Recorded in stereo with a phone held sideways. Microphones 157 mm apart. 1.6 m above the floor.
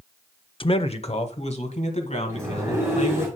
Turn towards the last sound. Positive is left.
turn(degrees=-15)  # may be behind; listen again after turning